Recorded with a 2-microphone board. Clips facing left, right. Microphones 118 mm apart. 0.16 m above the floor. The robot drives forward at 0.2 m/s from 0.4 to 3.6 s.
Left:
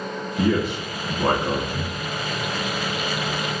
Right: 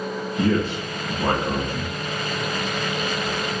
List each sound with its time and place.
0.4 s a man speaking: 10° left (ahead or behind), 1.7 m